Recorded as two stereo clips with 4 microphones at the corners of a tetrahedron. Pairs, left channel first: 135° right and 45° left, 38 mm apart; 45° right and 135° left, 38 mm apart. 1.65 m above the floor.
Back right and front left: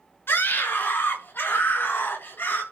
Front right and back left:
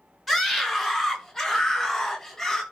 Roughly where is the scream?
Behind right.